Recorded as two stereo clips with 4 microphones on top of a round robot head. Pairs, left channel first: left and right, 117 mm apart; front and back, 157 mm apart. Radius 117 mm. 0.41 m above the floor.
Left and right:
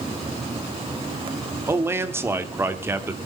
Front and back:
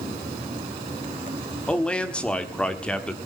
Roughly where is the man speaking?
Right.